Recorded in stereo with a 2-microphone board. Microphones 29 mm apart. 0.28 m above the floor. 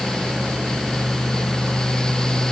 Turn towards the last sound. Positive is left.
No sound to turn to.